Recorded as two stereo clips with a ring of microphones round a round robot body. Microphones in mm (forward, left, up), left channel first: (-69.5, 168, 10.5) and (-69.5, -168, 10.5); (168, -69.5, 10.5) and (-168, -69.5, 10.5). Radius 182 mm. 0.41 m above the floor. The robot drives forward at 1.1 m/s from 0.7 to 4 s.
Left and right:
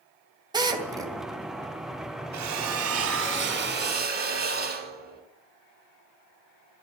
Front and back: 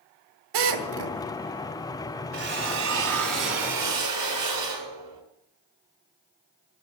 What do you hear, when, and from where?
0.5 s a drill: 170° right, 2.5 m
2.3 s a drill: 130° right, 2 m; by 5.2 s 155° right, 3.5 m